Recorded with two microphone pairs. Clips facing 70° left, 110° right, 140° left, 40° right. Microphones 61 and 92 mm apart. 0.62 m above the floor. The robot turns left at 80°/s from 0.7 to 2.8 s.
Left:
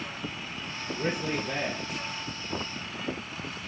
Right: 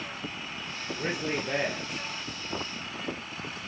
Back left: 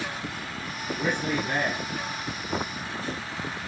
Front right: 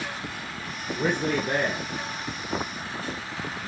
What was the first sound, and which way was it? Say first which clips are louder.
A man speaking: left 1 dB, front right 3 dB; 15° right.